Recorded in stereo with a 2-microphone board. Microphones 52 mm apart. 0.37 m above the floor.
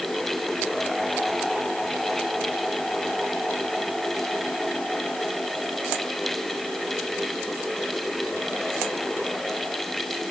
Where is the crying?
I don't hear crying.